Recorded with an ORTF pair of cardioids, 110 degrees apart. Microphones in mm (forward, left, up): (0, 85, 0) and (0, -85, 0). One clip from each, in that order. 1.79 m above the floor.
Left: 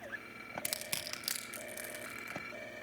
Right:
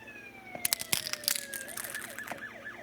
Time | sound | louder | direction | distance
0.7 | crushing | right 8 dB | 40° right | 2 m